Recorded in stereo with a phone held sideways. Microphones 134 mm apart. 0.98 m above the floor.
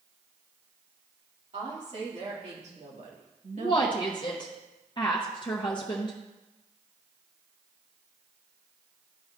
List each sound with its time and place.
1.5 s a woman speaking: 55° right (ahead or behind), 2.5 m
3.6 s a woman speaking: 35° left (ahead or behind), 0.9 m